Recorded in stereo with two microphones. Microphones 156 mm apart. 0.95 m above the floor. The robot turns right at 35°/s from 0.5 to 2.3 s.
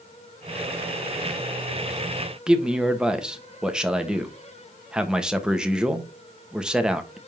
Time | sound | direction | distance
2.5 | a man speaking | 5° right (ahead or behind) | 1.2 m